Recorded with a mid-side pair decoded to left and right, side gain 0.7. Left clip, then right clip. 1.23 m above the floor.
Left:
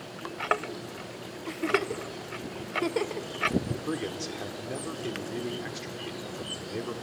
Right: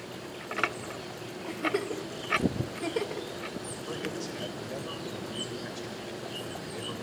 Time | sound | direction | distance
1.5 | a giggle | 25° left | 1.3 m
3.7 | a man speaking | 65° left | 3.5 m